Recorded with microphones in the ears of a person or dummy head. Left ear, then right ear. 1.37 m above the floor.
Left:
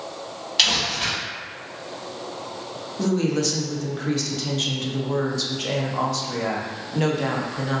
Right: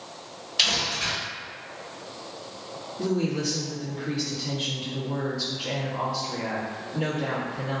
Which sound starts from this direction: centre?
Crumpling, at 0.6 s.